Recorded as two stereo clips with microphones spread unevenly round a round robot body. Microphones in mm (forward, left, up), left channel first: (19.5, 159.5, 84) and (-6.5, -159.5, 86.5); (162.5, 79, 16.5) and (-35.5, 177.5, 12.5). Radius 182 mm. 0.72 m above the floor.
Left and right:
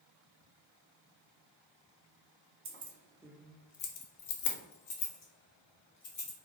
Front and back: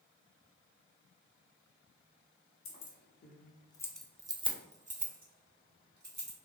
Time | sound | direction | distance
2.6 | keys jangling | 35° right | 0.7 m